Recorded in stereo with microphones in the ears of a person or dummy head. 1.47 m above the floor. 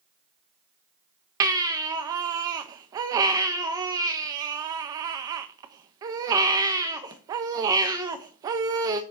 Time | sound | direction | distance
1.4 | a baby crying | 25° right (ahead or behind) | 0.9 m